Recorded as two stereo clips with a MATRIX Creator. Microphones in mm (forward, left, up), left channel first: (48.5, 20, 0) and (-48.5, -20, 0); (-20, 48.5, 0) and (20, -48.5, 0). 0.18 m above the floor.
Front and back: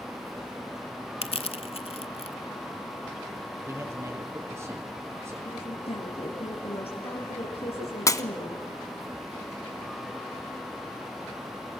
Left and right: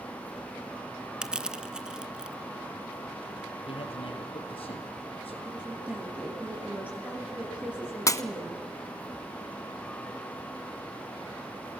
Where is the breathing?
No breathing in this recording.